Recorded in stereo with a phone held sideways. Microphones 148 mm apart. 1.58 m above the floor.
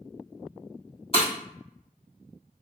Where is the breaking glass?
40° left (ahead or behind), 1.5 m.